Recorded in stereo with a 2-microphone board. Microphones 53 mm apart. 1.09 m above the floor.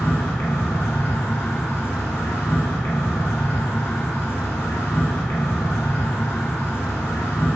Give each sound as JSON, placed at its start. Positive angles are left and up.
{"t": 0.0, "sound": "an insect", "side_deg": 65, "distance_m": 0.9}